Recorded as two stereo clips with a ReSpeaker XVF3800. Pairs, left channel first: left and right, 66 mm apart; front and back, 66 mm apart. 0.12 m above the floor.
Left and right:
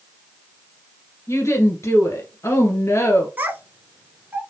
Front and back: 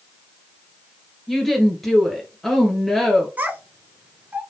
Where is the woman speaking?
90° left, 1.9 m.